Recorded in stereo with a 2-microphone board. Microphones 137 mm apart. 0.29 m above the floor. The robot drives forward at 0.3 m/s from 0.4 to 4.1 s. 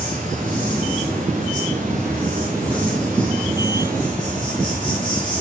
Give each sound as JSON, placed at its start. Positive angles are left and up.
{"t": 0.0, "sound": "an insect", "side_deg": -85, "distance_m": 5.0}